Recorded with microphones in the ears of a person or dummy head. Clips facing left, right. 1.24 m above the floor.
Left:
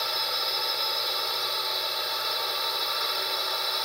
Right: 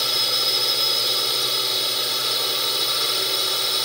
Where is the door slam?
I don't hear a door slam.